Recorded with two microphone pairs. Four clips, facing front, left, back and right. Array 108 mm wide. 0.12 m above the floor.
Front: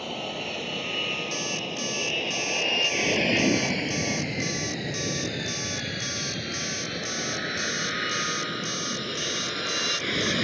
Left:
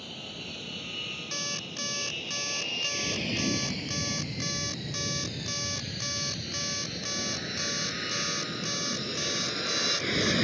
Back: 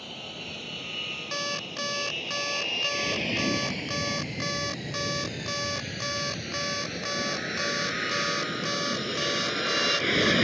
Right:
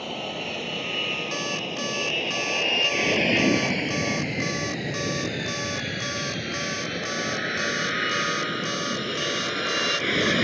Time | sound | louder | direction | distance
0.0 | an aircraft | right 11 dB, front 9 dB | 55° right | ?
1.3 | an alarm clock | right 9 dB, front 2 dB | 145° right | ?